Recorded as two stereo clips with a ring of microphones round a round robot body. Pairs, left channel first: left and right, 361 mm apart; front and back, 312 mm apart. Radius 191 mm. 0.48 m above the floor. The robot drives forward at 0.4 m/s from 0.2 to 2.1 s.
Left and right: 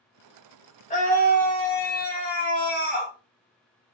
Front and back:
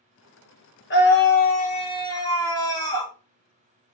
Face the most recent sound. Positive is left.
turn(degrees=65)